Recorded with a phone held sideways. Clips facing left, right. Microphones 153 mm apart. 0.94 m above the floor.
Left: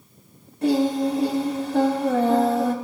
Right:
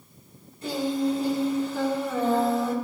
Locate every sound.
0.6 s singing: 85° left, 4.5 m